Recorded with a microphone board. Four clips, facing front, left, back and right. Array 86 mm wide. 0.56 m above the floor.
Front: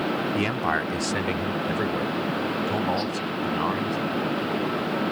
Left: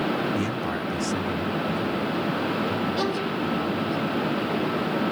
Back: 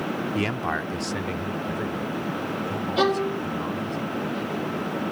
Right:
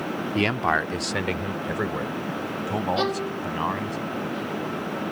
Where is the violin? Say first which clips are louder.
Even, back 5 dB; 170° right.